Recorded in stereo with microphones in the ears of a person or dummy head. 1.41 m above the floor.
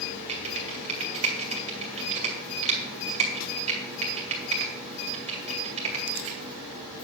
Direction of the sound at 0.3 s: 35° right (ahead or behind).